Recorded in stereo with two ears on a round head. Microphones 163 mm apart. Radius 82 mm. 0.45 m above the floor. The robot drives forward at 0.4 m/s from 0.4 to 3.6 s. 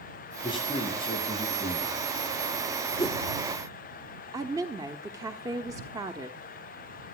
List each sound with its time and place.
0.4 s a man speaking: 30° left (ahead or behind), 9 m
3.0 s a whoosh: 20° left (ahead or behind), 1.2 m
4.3 s a woman speaking: 20° right (ahead or behind), 1.1 m